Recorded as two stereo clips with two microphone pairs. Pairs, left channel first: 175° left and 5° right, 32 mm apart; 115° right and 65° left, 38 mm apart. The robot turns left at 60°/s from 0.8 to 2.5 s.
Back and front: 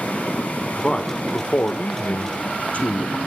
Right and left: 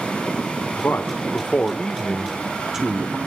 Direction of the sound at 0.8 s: 120° right.